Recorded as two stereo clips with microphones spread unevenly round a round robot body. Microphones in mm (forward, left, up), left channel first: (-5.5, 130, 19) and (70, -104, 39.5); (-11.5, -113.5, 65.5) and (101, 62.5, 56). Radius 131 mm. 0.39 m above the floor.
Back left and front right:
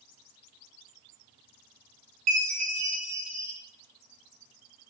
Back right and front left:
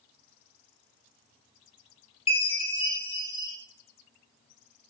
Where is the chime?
60° right, 3 m.